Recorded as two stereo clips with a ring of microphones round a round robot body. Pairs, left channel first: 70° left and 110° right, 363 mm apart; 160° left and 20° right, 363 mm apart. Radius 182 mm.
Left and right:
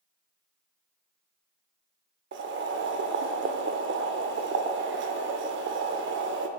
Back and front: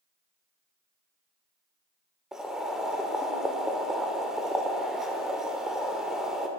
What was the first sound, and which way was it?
Boiling, 110° right.